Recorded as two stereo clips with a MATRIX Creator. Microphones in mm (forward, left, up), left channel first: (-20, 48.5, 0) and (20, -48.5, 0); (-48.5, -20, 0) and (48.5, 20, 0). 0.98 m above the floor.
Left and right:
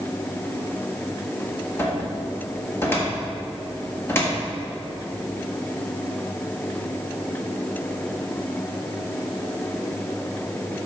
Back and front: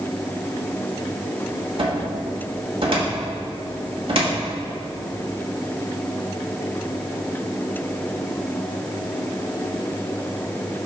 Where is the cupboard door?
45° left, 1.8 m.